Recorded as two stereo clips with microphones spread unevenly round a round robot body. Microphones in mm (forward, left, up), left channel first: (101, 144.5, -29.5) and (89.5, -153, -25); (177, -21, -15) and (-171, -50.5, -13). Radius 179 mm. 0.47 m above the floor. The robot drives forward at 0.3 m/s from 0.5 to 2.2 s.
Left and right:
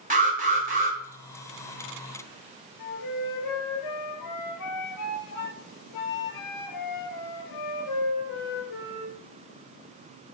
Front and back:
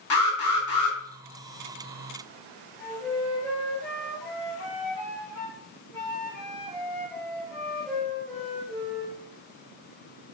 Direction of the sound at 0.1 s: 30° right.